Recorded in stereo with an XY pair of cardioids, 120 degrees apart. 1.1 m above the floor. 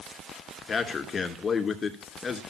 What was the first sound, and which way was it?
A man speaking, 30° left.